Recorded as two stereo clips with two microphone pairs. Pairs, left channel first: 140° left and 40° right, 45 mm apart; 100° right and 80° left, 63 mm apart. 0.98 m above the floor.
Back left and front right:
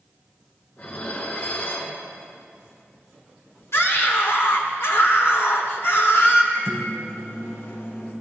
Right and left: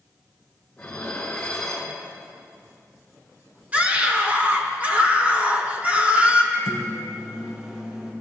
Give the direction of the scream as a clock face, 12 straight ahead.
7 o'clock.